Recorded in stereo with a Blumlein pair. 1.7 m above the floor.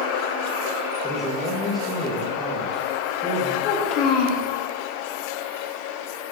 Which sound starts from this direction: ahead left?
A child speaking, at 3.6 s.